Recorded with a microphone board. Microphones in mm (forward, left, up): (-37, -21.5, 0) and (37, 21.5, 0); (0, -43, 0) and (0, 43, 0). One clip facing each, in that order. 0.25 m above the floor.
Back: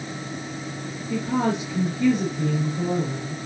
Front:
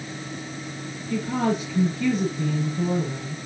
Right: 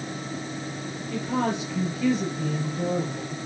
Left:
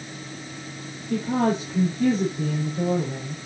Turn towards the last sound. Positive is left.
turn(degrees=140)